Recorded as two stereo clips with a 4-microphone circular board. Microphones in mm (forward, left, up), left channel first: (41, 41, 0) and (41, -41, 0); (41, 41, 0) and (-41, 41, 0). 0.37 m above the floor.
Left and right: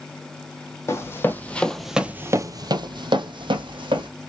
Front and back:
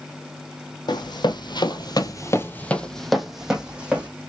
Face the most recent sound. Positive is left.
turn(degrees=-105)